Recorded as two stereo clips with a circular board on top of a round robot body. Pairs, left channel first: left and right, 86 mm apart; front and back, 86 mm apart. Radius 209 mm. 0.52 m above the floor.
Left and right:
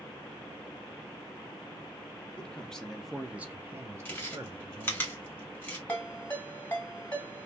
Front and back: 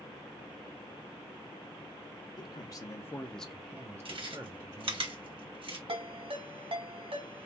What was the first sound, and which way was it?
A man speaking, 15° left.